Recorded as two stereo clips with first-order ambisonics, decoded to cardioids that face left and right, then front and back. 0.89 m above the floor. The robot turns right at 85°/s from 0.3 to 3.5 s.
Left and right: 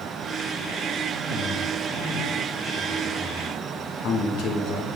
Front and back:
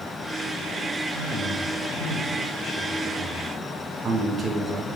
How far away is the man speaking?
About 1.5 m.